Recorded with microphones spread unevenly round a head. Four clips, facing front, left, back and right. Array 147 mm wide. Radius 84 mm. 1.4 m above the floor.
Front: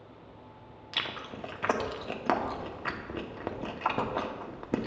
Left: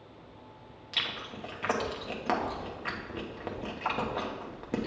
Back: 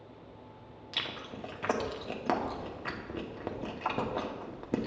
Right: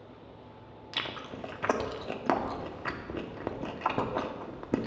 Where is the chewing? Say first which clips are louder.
Right 1 dB, front 3 dB; 15° right, 0.6 m.